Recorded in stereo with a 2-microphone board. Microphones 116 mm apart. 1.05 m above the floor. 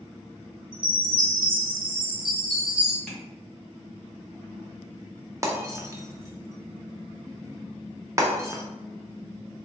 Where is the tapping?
5° left (ahead or behind), 1.3 m.